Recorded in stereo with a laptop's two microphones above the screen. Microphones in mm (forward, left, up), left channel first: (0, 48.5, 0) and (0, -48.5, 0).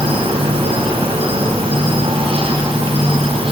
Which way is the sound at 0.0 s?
80° right.